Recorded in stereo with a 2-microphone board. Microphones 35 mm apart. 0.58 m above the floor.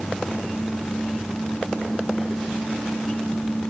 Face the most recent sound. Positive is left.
No sound to turn to.